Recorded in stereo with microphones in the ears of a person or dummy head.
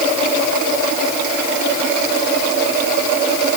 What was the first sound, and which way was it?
Only background noise.